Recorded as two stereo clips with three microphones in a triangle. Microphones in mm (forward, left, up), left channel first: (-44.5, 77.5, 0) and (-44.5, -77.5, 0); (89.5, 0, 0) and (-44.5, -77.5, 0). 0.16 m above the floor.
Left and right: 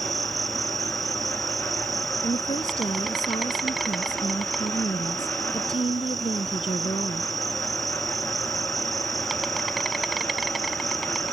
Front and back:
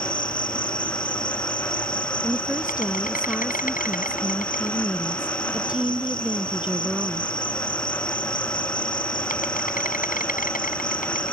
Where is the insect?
Straight ahead.